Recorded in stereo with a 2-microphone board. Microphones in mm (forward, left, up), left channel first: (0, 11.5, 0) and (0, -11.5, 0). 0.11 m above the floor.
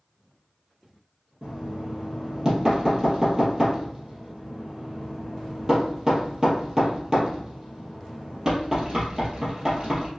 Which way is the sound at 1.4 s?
25° right (ahead or behind).